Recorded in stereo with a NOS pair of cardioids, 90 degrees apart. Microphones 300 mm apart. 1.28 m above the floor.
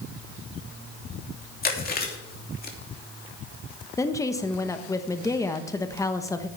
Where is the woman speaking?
10° left, 1.0 m.